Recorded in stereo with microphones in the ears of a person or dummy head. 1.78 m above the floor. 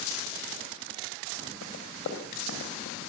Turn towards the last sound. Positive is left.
turn(degrees=50)  # may be behind; listen again after turning